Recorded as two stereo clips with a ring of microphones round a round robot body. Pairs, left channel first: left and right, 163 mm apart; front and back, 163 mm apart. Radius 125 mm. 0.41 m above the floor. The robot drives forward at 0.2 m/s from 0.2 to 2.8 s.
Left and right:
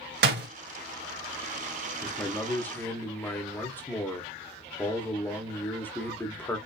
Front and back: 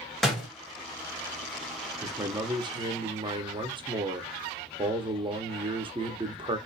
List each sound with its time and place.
0.2 s a door slam: 90° right, 1.6 m
2.0 s a man speaking: 145° left, 0.8 m; by 6.6 s 160° left, 0.9 m